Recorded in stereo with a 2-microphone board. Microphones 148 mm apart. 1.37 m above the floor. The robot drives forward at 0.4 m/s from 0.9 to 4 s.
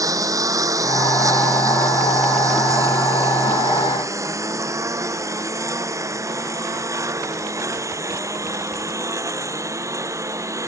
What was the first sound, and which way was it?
A lawn mower, 20° right (ahead or behind).